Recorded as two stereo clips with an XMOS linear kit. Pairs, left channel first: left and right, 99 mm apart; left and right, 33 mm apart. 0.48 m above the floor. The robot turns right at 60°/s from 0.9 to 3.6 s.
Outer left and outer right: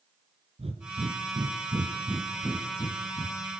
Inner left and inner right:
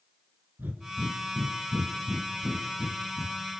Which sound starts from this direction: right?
Breathing, at 0.6 s.